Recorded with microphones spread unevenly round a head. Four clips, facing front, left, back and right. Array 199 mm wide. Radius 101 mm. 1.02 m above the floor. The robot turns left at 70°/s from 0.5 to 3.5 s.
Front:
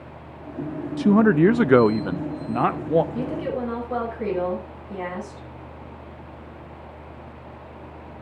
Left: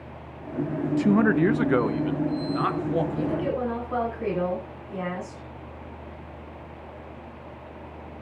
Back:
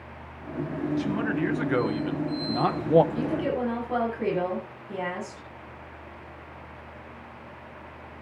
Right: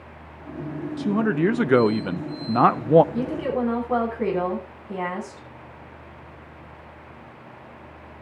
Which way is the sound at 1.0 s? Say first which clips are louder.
Left 2 dB, front 13 dB; 30° left.